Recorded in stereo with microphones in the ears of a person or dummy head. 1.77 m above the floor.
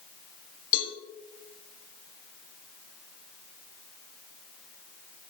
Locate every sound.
0.7 s a cowbell: 50° left (ahead or behind), 2 m